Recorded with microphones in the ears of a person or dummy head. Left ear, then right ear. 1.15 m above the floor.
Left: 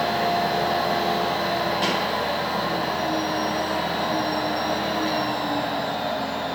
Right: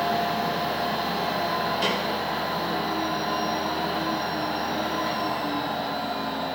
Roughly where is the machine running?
Centre.